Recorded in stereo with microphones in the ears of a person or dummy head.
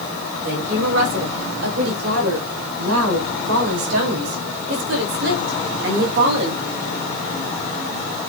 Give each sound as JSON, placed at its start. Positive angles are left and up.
{"t": 0.4, "sound": "a woman speaking", "side_deg": -70, "distance_m": 4.5}